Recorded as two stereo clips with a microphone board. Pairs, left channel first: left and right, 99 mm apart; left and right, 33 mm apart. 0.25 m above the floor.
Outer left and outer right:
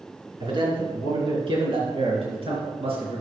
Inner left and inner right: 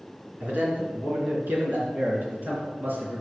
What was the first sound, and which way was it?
A man speaking, 50° right (ahead or behind).